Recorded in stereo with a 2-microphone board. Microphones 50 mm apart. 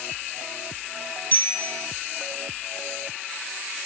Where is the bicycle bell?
40° left (ahead or behind), 7 m.